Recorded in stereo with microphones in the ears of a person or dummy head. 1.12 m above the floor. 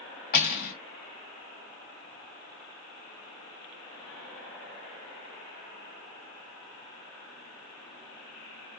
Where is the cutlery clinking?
50° left (ahead or behind), 1.8 m.